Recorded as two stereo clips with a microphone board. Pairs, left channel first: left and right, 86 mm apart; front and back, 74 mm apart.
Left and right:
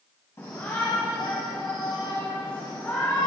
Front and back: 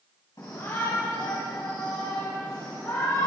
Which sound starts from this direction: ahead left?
A shout, at 0.4 s.